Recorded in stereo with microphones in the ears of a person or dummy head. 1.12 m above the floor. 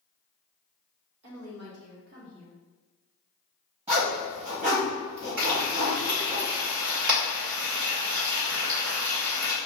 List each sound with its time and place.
1.2 s a woman speaking: 80° right, 1.4 m; by 2.6 s 20° right (ahead or behind), 0.9 m
3.9 s a zipper: 35° right (ahead or behind), 1.6 m
5.4 s frying: 65° right (ahead or behind), 1.8 m